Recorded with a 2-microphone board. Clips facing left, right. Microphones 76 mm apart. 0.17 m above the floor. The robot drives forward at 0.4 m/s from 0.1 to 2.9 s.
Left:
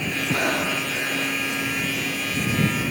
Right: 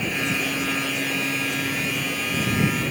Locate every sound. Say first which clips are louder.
0.3 s breathing: left 2 dB; 65° left (ahead or behind); by 1.4 s 60° left (ahead or behind)